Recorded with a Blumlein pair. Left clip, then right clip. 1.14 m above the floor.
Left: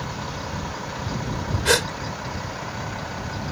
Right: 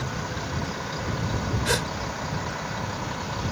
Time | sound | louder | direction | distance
1.6 | a gasp | left 7 dB | 70° left | ?